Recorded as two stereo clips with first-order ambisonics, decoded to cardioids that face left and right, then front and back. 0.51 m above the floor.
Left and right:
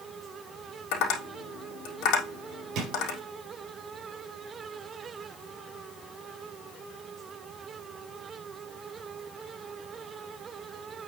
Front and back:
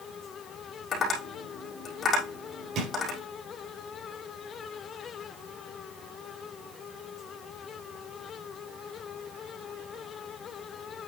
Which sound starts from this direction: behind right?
A drawer, at 2.8 s.